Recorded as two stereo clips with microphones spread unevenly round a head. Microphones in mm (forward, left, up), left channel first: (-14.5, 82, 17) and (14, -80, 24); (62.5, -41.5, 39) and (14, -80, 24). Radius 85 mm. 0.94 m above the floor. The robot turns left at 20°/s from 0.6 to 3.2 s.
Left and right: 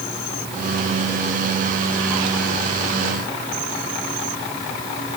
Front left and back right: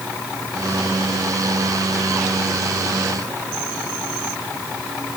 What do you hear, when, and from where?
Only background noise.